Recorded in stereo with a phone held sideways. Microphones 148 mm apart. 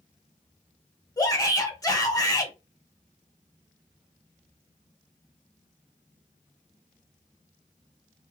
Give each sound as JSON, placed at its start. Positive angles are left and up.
{"t": 1.2, "sound": "a shout", "side_deg": 20, "distance_m": 1.0}